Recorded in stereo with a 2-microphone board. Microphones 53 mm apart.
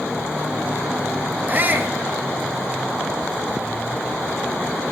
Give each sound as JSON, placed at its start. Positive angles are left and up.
{"t": 1.5, "sound": "a shout", "side_deg": -40, "distance_m": 3.0}